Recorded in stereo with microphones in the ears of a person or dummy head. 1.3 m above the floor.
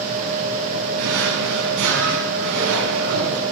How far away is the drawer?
About 5.5 m.